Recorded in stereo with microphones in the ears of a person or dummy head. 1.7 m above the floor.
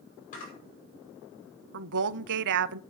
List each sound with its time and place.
0.3 s a camera shutter: 55° left (ahead or behind), 5.5 m
1.7 s a woman speaking: 65° right (ahead or behind), 0.6 m